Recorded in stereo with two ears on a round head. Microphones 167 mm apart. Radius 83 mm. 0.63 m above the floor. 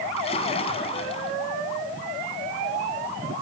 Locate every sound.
0.2 s a splash: 35° left (ahead or behind), 2 m